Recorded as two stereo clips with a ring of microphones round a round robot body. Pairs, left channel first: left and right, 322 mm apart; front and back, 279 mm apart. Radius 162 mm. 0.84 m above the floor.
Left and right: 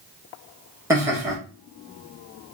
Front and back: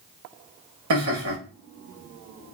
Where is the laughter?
170° right, 1.4 m.